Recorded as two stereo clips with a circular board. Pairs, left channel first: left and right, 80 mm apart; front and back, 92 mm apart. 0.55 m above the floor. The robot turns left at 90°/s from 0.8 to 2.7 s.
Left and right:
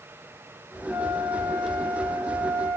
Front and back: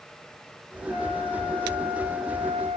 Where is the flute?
10° right, 9.5 m; by 2.8 s 170° right, 9.5 m.